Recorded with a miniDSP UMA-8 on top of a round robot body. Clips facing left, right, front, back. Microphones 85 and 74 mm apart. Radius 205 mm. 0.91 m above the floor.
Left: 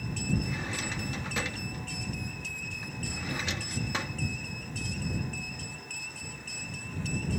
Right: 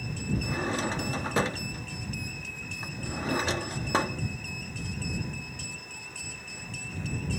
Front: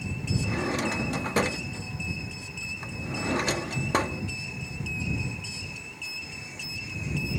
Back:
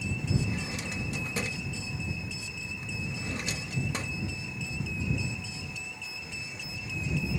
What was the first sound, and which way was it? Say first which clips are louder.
A drawer: right 6 dB, front 7 dB; 40° right.